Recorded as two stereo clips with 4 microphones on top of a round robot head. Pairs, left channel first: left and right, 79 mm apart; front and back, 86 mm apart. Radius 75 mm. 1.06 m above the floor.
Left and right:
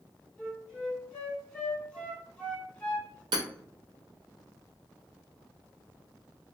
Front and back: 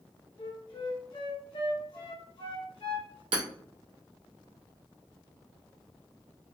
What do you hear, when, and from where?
0.4 s a flute: 15° left, 1.8 m
3.3 s hammering: 135° right, 0.6 m